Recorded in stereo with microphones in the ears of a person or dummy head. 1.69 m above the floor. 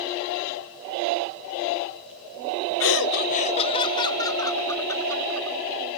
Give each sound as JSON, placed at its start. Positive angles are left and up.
{"t": 2.8, "sound": "laughter", "side_deg": 65}